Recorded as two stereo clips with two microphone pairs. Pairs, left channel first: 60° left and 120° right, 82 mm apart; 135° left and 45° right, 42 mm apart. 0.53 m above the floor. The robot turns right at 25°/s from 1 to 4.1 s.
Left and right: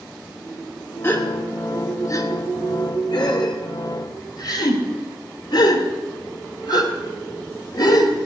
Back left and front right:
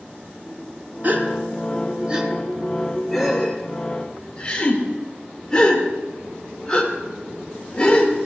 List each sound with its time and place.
1.0 s a gasp: 5° right, 1.5 m; by 8.2 s 75° left, 1.5 m